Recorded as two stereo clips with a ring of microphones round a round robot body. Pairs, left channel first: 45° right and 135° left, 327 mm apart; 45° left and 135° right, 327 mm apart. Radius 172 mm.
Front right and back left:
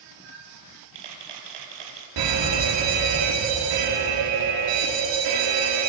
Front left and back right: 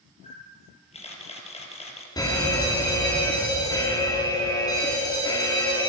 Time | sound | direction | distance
0.2 | a camera shutter | 120° left | 4.5 m
2.2 | a fire alarm | 125° left | 4 m